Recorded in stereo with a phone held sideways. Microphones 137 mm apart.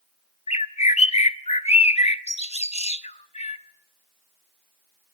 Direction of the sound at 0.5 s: 55° left (ahead or behind).